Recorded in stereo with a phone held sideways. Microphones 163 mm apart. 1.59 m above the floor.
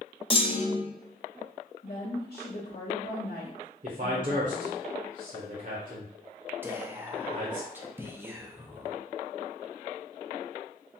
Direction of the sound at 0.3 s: 35° left (ahead or behind).